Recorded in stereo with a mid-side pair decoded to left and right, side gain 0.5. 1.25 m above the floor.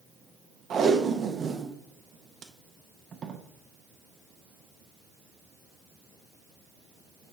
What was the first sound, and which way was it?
Tape being pulled, 45° right.